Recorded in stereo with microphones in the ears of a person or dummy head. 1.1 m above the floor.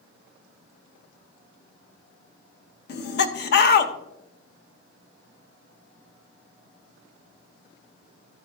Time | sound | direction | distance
2.9 | laughter | 50° left (ahead or behind) | 0.9 m